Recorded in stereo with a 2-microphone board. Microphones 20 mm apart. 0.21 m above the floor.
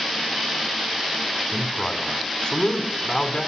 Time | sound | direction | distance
1.5 | a man speaking | 40° left (ahead or behind) | 1.8 m